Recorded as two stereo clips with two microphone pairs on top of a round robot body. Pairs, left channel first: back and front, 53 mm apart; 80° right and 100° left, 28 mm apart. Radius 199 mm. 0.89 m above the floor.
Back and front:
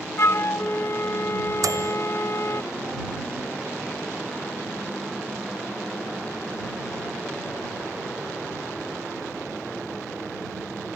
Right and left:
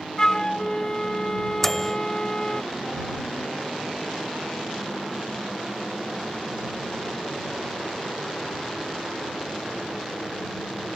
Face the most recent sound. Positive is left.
turn(degrees=0)